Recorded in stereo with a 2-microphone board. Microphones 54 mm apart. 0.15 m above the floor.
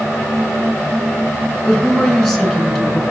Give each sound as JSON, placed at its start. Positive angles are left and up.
{"t": 1.6, "sound": "a woman speaking", "side_deg": 5, "distance_m": 2.0}